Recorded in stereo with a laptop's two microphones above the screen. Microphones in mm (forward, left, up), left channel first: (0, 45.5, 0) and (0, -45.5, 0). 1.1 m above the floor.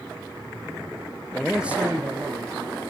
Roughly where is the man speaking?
Centre.